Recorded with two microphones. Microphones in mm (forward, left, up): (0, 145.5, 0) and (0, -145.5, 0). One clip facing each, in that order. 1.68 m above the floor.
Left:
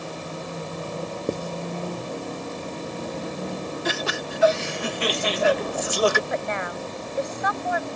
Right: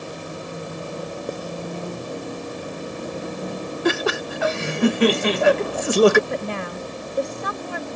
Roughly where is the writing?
Left.